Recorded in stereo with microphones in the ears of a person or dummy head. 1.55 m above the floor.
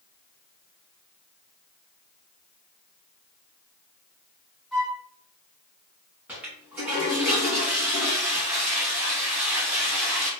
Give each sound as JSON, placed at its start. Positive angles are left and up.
{"t": 4.7, "sound": "a flute", "side_deg": 0, "distance_m": 1.0}
{"t": 6.3, "sound": "a toilet flushing", "side_deg": -10, "distance_m": 1.0}